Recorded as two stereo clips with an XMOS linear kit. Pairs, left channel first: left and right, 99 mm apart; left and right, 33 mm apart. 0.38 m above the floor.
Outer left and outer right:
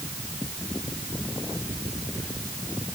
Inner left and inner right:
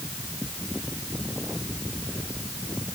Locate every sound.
Only background noise.